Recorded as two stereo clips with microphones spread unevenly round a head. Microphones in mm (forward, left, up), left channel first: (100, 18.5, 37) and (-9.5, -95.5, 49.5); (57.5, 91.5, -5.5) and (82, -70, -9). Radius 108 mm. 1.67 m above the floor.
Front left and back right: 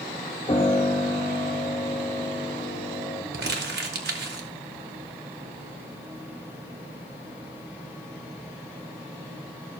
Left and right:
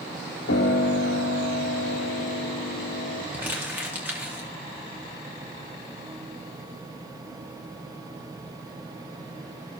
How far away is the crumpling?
About 0.7 m.